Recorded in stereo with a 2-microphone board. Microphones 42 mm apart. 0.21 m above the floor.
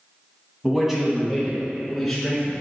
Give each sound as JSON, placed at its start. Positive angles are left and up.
{"t": 0.6, "sound": "a man speaking", "side_deg": -15, "distance_m": 1.1}